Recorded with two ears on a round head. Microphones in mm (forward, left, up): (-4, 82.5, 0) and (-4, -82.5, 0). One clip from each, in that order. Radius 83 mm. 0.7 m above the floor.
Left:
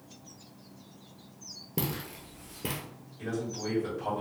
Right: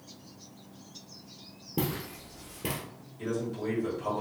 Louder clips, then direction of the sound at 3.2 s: Right 2 dB; 5° left (ahead or behind).